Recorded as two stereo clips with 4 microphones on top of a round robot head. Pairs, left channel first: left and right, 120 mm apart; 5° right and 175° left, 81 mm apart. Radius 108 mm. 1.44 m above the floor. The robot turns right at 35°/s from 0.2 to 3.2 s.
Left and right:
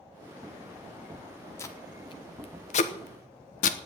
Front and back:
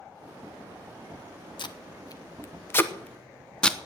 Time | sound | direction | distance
1.6 | tape being pulled | 20° left | 1.0 m